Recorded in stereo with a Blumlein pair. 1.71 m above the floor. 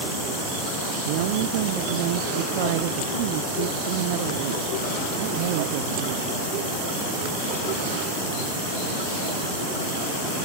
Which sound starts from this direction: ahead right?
A woman speaking, at 1.1 s.